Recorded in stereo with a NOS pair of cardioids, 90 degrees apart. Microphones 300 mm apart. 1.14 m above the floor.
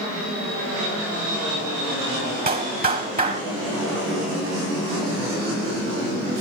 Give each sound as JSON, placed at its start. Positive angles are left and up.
{"t": 2.5, "sound": "a clap", "azimuth_deg": -30, "distance_m": 6.5}